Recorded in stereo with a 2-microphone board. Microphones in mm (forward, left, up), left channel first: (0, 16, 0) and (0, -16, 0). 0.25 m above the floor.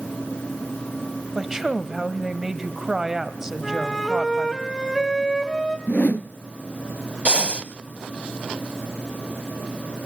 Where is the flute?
5° left (ahead or behind), 1.7 m.